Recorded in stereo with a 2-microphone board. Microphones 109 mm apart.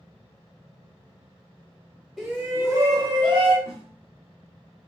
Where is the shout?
5° right (ahead or behind), 0.9 m; by 3.5 s 50° right (ahead or behind), 1.3 m.